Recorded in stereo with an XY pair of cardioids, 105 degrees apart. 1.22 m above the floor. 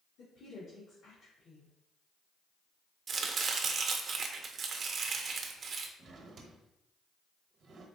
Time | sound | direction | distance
0.2 | a woman speaking | 65° left | 1.5 m
3.1 | chopping | 50° right | 0.6 m
6.0 | a drawer | 50° right | 0.8 m